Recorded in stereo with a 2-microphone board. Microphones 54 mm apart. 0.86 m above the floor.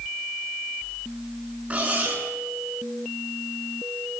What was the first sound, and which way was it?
Cutlery clinking, 25° right (ahead or behind).